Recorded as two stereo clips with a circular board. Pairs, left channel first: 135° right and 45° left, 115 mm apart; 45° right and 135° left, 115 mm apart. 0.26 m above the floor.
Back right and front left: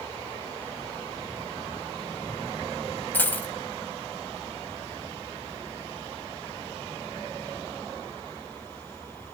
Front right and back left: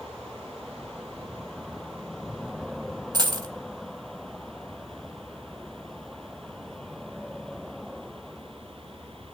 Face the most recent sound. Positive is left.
turn(degrees=160)